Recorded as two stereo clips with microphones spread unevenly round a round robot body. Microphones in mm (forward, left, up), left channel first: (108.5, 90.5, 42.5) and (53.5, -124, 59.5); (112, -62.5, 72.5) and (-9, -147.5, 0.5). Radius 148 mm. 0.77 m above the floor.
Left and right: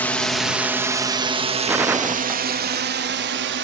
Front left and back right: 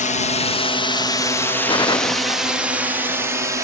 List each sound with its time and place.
0.0 s a drone: 15° left; by 3.6 s 115° right
1.7 s a gunshot: 25° right